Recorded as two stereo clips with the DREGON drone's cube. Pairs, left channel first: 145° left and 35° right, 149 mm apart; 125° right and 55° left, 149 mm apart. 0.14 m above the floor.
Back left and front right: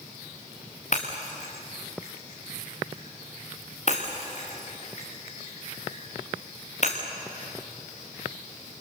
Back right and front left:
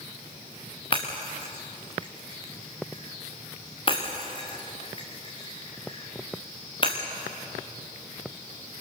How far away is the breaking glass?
About 4 m.